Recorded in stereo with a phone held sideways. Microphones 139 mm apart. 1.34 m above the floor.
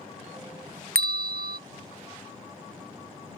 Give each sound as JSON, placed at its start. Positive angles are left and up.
{"t": 0.9, "sound": "a bell", "side_deg": -85}